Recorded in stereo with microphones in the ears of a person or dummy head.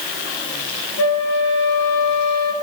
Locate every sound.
1.0 s a flute: 70° left (ahead or behind), 0.6 m